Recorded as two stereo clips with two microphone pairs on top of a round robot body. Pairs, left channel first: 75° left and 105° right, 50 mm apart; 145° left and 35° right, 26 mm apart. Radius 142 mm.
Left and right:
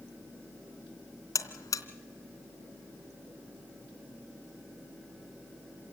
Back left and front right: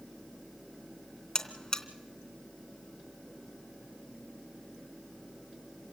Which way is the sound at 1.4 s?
80° left.